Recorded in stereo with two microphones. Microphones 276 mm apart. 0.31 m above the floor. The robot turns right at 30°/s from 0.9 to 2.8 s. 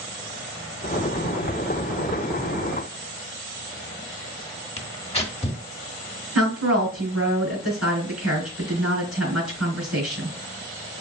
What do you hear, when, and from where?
4.8 s tearing paper: 20° left (ahead or behind), 0.9 m
6.3 s a woman speaking: 70° right (ahead or behind), 3.5 m